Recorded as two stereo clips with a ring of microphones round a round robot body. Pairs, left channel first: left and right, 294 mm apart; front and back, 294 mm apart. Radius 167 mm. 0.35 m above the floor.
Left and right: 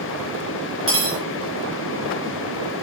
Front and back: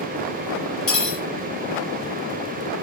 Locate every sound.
0.9 s cutlery clinking: 40° right, 3 m